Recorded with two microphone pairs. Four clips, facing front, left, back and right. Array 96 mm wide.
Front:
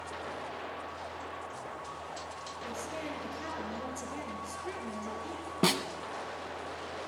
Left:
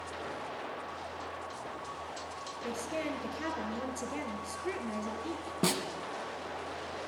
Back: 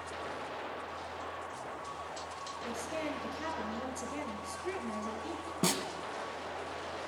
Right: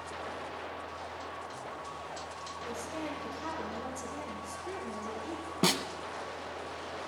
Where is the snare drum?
25° right, 0.8 m.